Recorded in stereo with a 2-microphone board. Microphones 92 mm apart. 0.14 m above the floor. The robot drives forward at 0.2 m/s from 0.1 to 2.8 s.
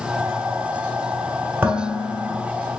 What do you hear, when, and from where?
1.6 s dishes clattering: 20° right (ahead or behind), 1.1 m; by 2.4 s 25° right (ahead or behind), 1.0 m